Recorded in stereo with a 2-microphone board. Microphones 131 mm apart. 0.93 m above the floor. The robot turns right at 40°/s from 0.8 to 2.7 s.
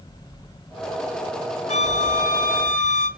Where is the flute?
60° left, 2.5 m; by 3.1 s 100° left, 2.5 m.